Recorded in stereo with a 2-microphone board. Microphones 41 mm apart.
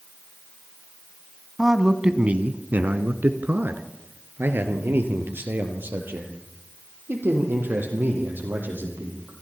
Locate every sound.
1.6 s a man speaking: 10° right (ahead or behind), 1.3 m; by 9.3 s 65° right (ahead or behind), 7.5 m